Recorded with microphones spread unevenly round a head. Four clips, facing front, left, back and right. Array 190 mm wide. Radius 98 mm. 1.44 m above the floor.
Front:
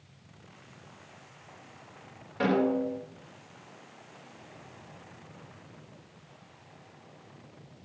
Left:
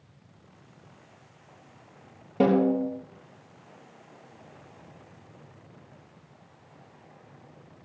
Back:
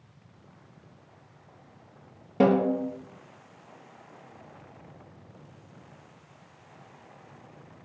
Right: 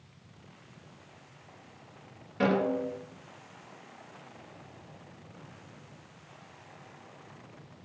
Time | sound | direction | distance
2.4 | a snare drum | 130° left | 3.5 m